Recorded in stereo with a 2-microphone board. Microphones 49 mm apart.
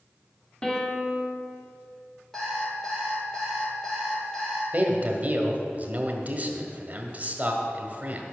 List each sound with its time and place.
0.6 s a piano: 20° left (ahead or behind), 1.3 m
2.3 s an alarm clock: 10° left (ahead or behind), 3 m
4.7 s a man speaking: 35° right (ahead or behind), 1.2 m